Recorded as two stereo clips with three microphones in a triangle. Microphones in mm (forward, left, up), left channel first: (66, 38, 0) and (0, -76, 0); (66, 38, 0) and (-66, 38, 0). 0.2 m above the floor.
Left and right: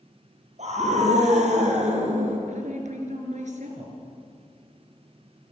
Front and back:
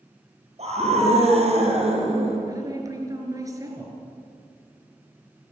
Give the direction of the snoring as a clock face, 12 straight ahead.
No snoring in this recording.